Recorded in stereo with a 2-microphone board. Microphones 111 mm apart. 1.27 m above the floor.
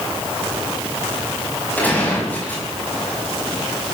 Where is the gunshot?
15° left (ahead or behind), 6 m.